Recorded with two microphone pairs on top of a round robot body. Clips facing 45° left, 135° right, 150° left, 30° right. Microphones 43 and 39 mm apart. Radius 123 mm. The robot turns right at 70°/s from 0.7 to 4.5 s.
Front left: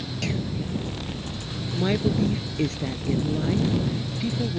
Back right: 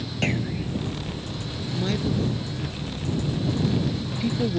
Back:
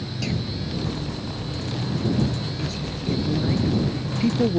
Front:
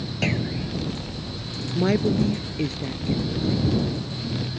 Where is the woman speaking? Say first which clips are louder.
Front left 3 dB, front 4 dB; 35° right; by 4.6 s 160° left.